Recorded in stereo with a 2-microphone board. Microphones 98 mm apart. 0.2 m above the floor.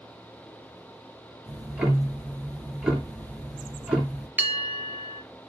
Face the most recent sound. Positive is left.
turn(degrees=-20)  # may be behind; listen again after turning